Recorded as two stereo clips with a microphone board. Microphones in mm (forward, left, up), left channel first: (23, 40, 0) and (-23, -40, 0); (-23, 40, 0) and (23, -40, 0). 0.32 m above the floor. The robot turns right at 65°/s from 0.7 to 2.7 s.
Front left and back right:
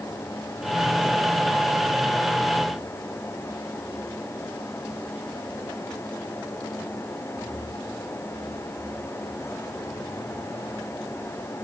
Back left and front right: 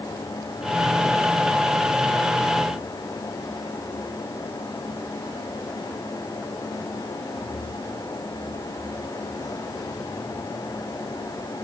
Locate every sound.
Only background noise.